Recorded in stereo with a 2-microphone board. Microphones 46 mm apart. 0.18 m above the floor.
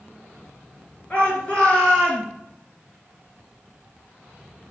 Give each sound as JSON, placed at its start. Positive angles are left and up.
{"t": 1.1, "sound": "a shout", "side_deg": 35, "distance_m": 3.5}